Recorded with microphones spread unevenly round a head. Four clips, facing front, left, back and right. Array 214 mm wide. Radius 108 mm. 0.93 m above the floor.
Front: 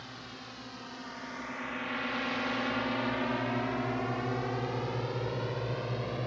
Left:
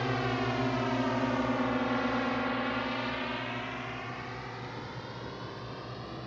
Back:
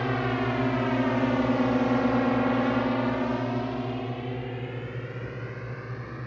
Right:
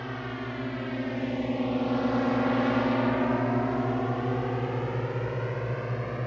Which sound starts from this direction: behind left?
A drone, at 0.0 s.